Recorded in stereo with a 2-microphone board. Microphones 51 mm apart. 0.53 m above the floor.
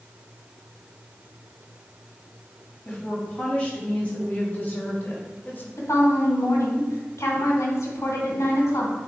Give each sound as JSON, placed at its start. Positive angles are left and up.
{"t": 2.9, "sound": "a woman speaking", "side_deg": 25, "distance_m": 3.5}
{"t": 5.8, "sound": "a woman speaking", "side_deg": 75, "distance_m": 2.5}